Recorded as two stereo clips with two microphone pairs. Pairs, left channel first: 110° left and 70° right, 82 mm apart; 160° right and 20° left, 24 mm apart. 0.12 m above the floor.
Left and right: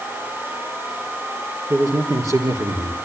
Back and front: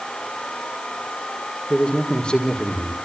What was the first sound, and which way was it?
A man speaking, 110° right.